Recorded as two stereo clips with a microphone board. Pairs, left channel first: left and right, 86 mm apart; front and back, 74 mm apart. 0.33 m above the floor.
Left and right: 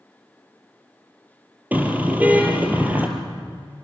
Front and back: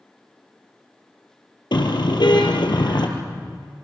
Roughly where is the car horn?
Ahead.